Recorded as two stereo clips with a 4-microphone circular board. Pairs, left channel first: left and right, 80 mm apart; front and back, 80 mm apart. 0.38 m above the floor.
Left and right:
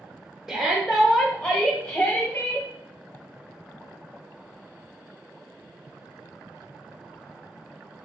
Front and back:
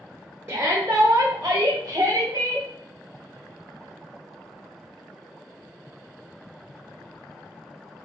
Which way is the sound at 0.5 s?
170° right.